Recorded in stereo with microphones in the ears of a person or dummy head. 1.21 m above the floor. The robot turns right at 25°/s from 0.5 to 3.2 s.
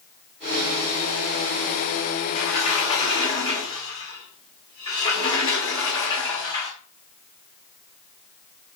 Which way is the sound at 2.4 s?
35° left (ahead or behind).